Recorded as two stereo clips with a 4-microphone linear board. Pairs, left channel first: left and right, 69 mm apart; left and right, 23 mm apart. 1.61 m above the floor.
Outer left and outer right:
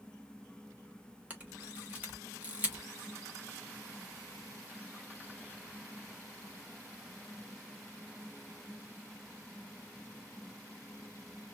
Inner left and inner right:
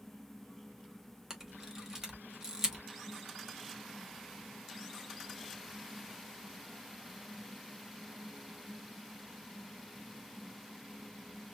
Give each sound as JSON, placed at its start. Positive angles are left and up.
{"t": 1.3, "sound": "a camera shutter", "side_deg": -25, "distance_m": 1.6}